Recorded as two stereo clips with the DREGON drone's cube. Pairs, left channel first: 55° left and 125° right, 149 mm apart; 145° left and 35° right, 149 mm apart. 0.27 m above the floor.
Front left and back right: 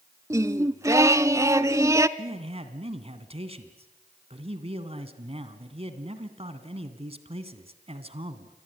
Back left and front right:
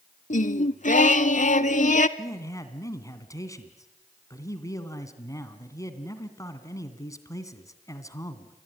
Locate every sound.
0.3 s singing: 170° left, 0.7 m
2.2 s a man speaking: 155° right, 2 m